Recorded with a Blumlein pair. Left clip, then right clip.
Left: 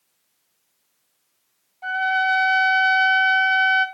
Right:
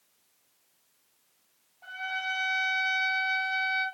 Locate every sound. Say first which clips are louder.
1.8 s a trumpet: left 13 dB; 35° left, 2.5 m